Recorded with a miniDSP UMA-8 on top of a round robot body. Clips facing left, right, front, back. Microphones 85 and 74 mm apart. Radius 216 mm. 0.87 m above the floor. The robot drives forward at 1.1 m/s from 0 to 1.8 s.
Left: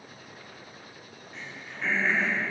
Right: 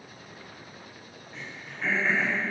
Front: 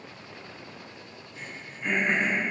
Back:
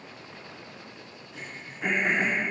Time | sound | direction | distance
1.3 | throat clearing | straight behind | 2.5 m